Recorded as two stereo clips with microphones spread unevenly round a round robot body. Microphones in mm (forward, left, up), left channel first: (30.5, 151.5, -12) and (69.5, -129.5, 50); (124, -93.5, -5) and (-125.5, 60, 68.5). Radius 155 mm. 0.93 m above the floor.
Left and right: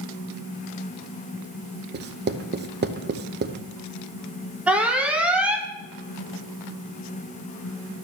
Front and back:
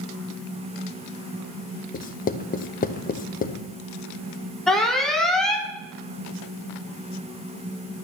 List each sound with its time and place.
1.9 s writing: 30° right, 0.8 m
4.7 s an alarm: 25° left, 1.3 m